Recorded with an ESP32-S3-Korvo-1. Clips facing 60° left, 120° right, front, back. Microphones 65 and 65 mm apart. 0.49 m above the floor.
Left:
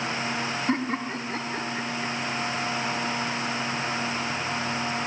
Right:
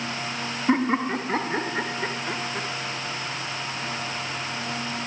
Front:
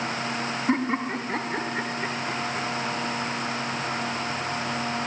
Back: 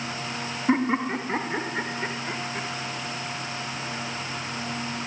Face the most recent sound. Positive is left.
turn(degrees=-100)